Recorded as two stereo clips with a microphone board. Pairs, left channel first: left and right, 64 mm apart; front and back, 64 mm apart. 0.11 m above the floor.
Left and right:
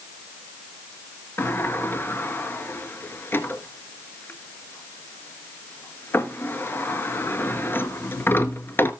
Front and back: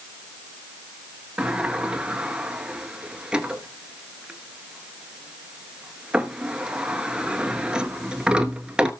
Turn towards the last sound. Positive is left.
turn(degrees=110)